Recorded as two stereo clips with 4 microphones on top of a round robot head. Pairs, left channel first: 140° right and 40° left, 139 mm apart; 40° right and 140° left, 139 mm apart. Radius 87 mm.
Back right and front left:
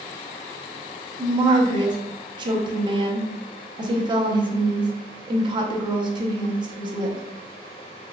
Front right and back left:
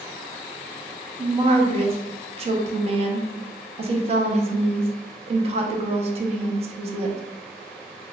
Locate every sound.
1.2 s a woman speaking: 95° left, 0.7 m